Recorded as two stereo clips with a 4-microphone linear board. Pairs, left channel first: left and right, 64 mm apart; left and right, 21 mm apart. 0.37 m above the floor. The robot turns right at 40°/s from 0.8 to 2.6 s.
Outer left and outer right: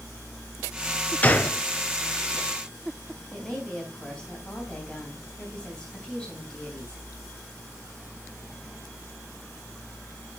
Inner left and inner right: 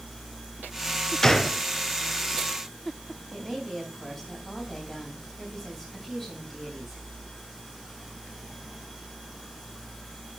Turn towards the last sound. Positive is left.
turn(degrees=15)  # may be behind; listen again after turning